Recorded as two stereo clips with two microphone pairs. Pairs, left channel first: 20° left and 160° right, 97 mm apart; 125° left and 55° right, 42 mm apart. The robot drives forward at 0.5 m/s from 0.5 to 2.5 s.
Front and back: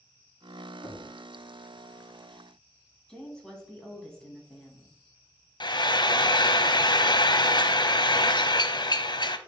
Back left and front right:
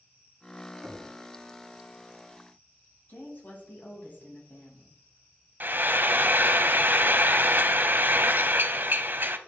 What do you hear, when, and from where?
0.8 s knocking: 25° right, 2.5 m
3.1 s a woman speaking: 95° left, 2.5 m
5.6 s frying: 15° right, 0.5 m